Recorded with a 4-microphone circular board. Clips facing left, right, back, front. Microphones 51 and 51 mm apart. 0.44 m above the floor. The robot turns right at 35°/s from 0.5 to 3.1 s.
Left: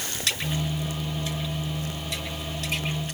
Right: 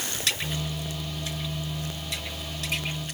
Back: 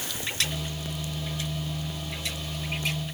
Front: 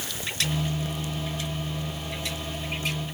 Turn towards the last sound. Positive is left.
No sound to turn to.